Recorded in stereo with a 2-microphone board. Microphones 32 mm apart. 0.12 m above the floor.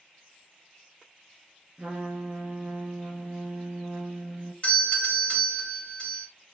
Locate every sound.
1.8 s a trumpet: 25° right (ahead or behind), 1.8 m
4.6 s a doorbell: 30° left (ahead or behind), 1.8 m